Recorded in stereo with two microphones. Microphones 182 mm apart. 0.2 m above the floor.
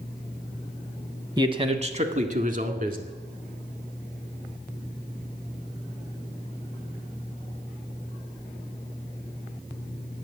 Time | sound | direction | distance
1.4 | a man speaking | 25° right (ahead or behind) | 1.0 m